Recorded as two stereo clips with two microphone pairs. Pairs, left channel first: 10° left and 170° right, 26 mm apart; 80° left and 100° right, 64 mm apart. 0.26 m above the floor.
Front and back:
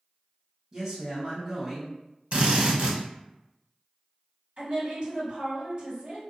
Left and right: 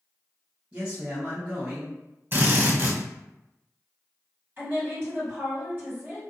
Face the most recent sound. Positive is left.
turn(degrees=-140)